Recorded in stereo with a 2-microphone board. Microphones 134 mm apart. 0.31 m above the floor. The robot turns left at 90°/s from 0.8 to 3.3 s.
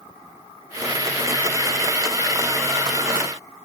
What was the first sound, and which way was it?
Only background noise.